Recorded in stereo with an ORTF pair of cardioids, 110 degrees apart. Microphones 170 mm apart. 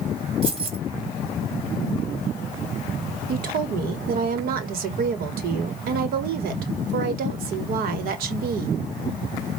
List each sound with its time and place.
0.4 s keys jangling: 35° right, 2 m
3.3 s a woman speaking: 65° right, 1.5 m